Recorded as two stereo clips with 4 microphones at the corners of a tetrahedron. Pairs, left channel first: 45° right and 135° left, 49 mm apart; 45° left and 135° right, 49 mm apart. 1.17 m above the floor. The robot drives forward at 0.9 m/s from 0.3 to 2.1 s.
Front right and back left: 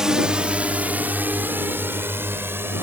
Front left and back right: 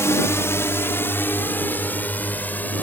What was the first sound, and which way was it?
A drone, 60° left.